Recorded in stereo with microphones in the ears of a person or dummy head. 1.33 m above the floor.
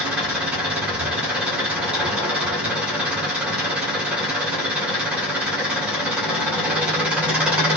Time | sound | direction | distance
0.0 | an engine running | centre (ahead or behind) | 1.6 m